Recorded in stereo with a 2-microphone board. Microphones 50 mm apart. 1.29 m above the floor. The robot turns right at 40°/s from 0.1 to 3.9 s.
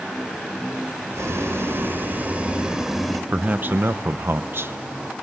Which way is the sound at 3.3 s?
30° right (ahead or behind).